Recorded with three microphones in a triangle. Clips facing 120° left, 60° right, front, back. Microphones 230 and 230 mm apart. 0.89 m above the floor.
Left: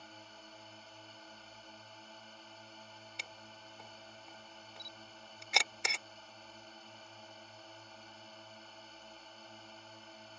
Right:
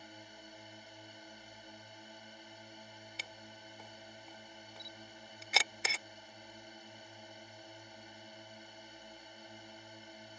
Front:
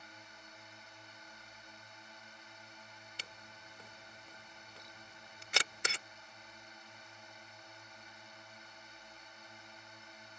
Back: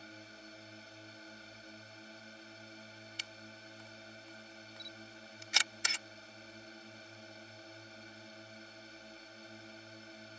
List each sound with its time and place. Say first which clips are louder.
0.0 s a drone: right 2 dB, back 6 dB; 135° right
3.2 s a camera shutter: right 2 dB, back 4 dB; 30° left